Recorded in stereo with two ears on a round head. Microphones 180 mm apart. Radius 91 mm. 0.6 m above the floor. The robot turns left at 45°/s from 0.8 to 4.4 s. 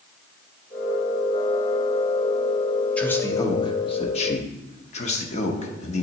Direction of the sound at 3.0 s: 5° left (ahead or behind).